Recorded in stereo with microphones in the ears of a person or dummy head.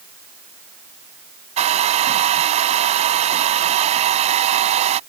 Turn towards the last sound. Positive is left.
turn(degrees=-35)  # may be behind; listen again after turning